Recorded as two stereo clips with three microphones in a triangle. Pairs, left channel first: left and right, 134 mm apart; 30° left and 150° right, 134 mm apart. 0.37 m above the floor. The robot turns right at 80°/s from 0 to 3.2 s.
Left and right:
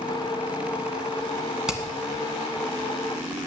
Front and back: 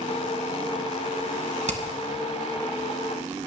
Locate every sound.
1.7 s hammering: 175° right, 1.9 m; by 1.8 s 165° right, 1.9 m